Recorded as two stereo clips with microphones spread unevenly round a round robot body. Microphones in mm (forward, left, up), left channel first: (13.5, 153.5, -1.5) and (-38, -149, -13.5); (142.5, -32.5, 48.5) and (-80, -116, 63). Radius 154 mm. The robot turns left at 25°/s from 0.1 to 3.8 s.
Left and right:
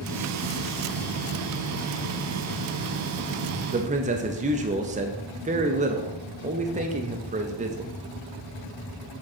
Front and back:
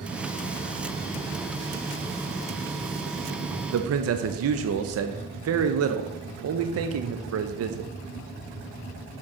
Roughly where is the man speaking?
Behind.